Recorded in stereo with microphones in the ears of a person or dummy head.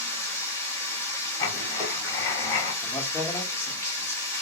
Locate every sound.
0.0 s running water: 20° left (ahead or behind), 2 m
1.4 s writing: 20° left (ahead or behind), 3 m
2.8 s a man speaking: 20° left (ahead or behind), 1.6 m